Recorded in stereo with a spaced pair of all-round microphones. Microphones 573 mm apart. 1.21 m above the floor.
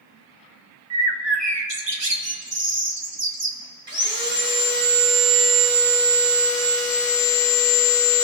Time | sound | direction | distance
0.9 | a bird | 45° right (ahead or behind) | 0.9 m
3.9 | sawing | 20° right (ahead or behind) | 3 m